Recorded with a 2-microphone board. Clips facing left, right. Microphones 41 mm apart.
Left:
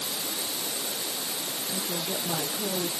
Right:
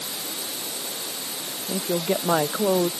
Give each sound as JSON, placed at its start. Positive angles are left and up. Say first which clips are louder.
{"t": 1.7, "sound": "a woman speaking", "louder": "right 10 dB", "side_deg": -55}